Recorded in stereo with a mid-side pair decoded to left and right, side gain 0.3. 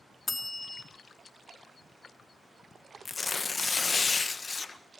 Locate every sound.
0.3 s a bell: 35° left, 3 m
3.0 s tearing paper: 45° left, 1.4 m